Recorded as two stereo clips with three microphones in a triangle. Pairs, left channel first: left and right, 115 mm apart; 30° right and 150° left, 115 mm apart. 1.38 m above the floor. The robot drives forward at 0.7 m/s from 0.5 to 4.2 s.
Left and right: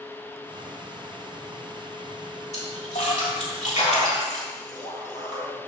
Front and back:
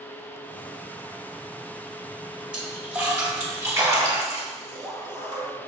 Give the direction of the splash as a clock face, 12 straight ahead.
10 o'clock.